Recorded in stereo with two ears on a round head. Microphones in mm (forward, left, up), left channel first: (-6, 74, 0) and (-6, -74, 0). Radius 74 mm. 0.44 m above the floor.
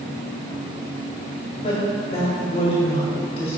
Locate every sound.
1.6 s a woman speaking: 35° left (ahead or behind), 2.5 m